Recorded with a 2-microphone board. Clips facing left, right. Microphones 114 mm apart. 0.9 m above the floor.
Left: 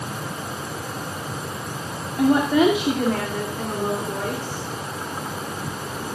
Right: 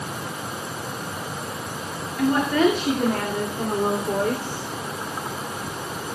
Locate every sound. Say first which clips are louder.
2.2 s a woman speaking: left 2 dB; 30° left (ahead or behind), 2.5 m; by 4.6 s 35° right (ahead or behind), 4 m